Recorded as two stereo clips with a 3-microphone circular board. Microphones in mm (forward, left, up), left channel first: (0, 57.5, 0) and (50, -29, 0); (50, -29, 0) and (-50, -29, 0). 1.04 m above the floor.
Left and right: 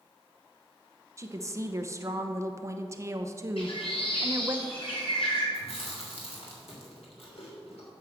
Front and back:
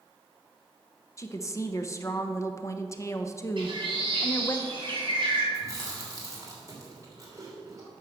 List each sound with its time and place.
1.2 s a woman speaking: 30° right, 0.8 m
3.6 s a bird: 140° left, 3.5 m
5.5 s chewing: 125° left, 3 m